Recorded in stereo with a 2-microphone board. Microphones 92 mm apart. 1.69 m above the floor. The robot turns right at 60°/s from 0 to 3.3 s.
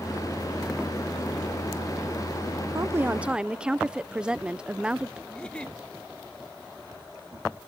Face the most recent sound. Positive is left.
turn(degrees=10)  # may be behind; listen again after turning